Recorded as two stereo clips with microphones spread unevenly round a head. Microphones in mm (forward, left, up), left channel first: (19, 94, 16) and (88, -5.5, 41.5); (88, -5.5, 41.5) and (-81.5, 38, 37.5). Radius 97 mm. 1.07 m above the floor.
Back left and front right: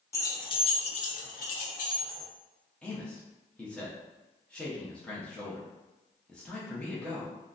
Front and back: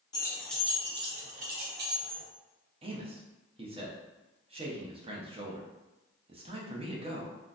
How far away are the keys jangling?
About 0.8 m.